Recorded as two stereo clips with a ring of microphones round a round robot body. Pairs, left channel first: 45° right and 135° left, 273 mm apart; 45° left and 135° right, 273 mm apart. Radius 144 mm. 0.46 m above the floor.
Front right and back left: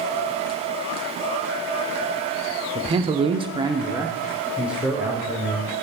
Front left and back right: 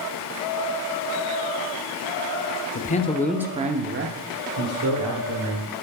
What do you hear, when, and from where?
2.8 s a man speaking: 75° left, 0.8 m; by 5.7 s 135° right, 2.0 m